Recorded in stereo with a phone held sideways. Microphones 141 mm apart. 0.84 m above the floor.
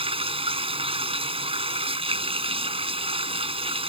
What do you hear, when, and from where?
0.0 s running water: 40° right (ahead or behind)